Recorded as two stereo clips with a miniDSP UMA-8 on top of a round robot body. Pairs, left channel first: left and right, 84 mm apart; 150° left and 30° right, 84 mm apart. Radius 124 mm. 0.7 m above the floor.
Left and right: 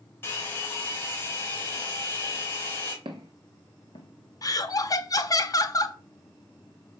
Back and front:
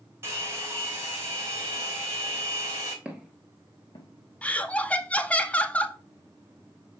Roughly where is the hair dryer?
Ahead left.